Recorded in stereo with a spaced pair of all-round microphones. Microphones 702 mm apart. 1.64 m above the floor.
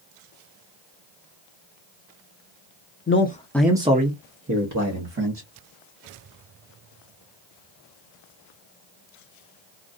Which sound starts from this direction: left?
A man speaking, at 3.1 s.